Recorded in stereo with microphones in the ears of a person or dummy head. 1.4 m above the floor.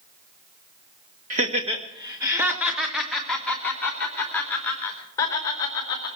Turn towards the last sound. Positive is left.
turn(degrees=25)  # may be behind; listen again after turning